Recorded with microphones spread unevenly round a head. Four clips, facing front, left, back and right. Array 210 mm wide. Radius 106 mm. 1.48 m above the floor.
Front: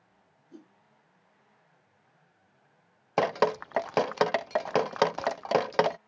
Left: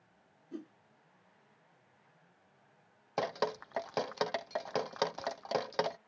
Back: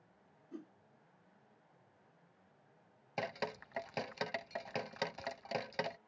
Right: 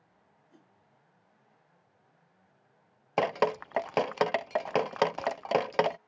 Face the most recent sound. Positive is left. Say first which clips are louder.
# right 7 dB, front 16 dB
turn(degrees=-25)